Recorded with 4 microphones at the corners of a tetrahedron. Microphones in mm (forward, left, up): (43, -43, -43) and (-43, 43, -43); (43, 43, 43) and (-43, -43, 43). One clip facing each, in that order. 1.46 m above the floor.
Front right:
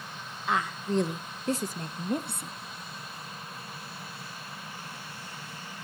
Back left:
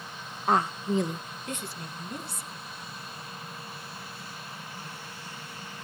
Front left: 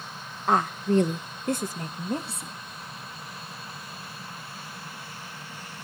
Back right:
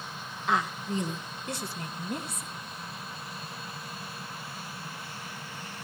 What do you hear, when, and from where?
0.5 s a woman speaking: 90° left, 1.0 m; by 2.6 s 15° right, 2 m